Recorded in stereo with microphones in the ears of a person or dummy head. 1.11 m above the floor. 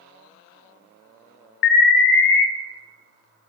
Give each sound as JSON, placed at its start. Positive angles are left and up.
{"t": 1.6, "sound": "an alarm", "side_deg": 60, "distance_m": 0.5}